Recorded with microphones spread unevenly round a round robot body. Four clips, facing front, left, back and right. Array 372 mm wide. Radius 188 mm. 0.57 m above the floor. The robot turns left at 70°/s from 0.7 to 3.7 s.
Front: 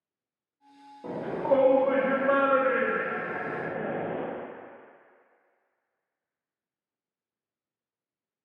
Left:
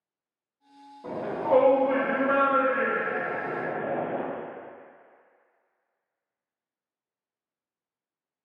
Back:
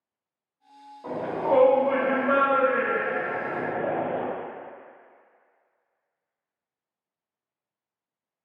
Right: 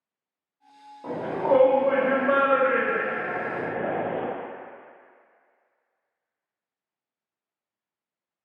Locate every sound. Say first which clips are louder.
1.0 s a shout: right 3 dB, back 1 dB; 10° left, 0.9 m; by 4.2 s straight behind, 0.9 m